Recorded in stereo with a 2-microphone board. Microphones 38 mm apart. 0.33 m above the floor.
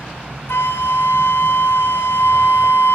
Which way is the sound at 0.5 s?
75° left (ahead or behind).